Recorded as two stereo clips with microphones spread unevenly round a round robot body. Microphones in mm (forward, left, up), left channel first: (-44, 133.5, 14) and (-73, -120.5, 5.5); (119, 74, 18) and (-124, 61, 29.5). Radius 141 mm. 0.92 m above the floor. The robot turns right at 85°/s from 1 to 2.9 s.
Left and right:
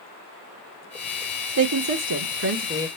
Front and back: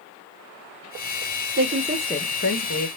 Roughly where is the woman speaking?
Behind right.